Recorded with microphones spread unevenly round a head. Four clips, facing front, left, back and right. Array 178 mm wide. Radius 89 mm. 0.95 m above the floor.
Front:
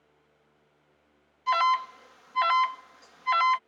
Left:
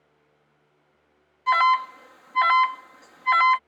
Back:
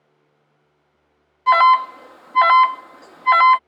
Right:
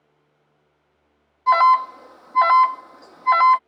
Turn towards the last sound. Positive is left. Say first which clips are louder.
# right 5 dB, back 12 dB
turn(degrees=-150)